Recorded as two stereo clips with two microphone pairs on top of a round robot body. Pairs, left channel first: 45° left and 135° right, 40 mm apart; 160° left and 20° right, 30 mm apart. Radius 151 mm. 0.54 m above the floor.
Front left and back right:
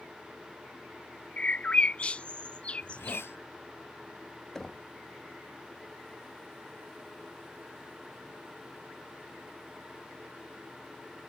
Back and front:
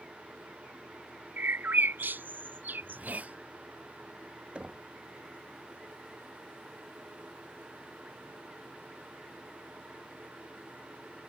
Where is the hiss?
20° left.